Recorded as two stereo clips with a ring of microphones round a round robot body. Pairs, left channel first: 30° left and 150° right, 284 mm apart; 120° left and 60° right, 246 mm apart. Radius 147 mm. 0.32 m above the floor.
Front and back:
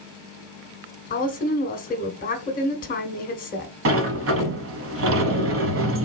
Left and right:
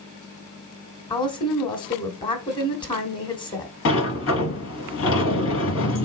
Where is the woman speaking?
65° left, 1.3 m.